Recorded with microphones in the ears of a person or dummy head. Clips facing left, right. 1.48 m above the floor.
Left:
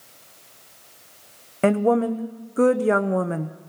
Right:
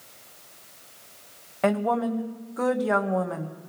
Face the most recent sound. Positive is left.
turn(degrees=35)  # may be behind; listen again after turning